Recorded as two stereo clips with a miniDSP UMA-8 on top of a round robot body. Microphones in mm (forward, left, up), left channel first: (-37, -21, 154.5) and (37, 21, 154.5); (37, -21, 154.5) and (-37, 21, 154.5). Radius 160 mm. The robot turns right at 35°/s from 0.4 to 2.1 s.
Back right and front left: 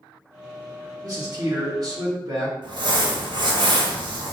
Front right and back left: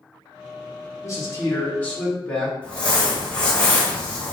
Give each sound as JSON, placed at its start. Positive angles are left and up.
{"t": 1.0, "sound": "a man speaking", "azimuth_deg": 5, "distance_m": 1.9}
{"t": 2.6, "sound": "crumpling", "azimuth_deg": 45, "distance_m": 1.3}